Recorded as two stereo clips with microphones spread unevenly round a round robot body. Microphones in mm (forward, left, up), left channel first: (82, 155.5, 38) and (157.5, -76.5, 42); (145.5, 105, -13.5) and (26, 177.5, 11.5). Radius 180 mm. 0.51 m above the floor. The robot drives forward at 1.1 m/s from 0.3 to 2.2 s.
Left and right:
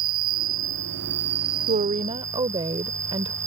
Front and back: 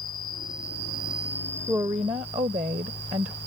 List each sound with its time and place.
0.0 s an insect: 120° right; by 3.5 s 140° right
1.7 s a woman speaking: 130° right; by 3.4 s 145° right